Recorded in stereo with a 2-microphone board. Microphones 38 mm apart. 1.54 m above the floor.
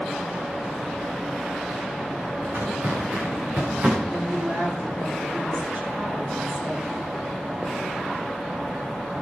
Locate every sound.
2.4 s footsteps: 50° right (ahead or behind), 7.5 m; by 4.0 s 45° right (ahead or behind), 7 m
4.1 s a woman speaking: 60° right (ahead or behind), 4.5 m